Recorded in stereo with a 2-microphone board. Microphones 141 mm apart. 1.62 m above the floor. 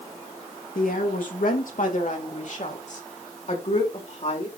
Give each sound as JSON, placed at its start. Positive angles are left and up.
{"t": 0.8, "sound": "a woman speaking", "side_deg": 75, "distance_m": 2.5}